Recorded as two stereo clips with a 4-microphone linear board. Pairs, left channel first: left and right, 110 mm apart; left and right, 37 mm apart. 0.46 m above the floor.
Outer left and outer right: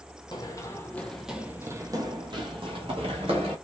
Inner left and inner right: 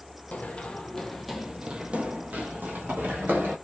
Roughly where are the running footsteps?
Left.